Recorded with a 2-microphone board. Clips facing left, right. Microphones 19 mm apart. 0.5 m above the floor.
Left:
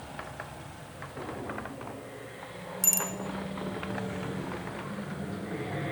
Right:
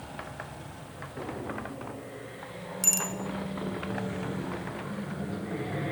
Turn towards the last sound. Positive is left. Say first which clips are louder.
# right 1 dB
turn(degrees=-10)  # may be behind; listen again after turning